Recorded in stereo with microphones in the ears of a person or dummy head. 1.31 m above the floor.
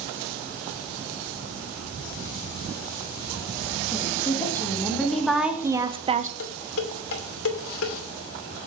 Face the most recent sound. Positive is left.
turn(degrees=80)